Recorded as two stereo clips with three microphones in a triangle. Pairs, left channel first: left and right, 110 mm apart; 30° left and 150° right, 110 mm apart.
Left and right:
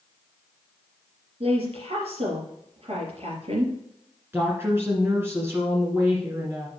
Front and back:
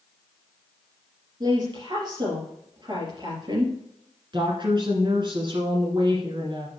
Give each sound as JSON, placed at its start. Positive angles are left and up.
{"t": 1.4, "sound": "a woman speaking", "azimuth_deg": -105, "distance_m": 3.5}
{"t": 4.3, "sound": "a woman speaking", "azimuth_deg": -150, "distance_m": 1.7}